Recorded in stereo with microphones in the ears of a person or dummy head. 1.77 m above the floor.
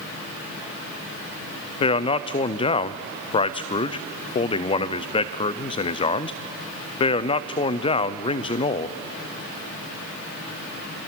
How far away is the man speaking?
About 0.6 m.